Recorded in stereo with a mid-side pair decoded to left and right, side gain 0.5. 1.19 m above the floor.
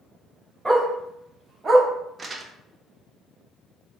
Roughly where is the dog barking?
Ahead.